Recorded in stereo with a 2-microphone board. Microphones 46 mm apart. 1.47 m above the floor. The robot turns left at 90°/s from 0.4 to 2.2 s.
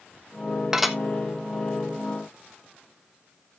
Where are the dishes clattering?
15° right (ahead or behind), 1.2 m; by 1.0 s 5° left (ahead or behind), 1.2 m.